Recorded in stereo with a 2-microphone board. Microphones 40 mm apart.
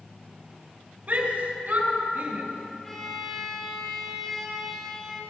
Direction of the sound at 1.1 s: 50° right (ahead or behind).